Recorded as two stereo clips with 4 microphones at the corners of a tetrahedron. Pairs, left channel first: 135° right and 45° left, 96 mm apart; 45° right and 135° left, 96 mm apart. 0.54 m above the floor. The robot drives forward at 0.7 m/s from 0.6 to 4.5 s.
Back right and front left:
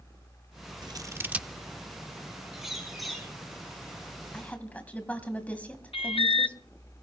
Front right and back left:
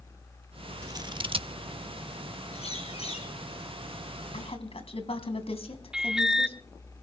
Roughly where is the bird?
Ahead right.